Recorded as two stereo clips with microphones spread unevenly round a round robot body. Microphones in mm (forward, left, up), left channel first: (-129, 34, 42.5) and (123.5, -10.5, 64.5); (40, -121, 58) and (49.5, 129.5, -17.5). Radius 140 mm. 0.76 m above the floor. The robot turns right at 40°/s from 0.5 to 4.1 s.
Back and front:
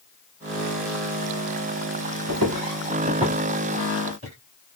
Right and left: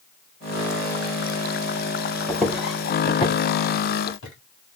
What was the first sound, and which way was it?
Footsteps, 15° right.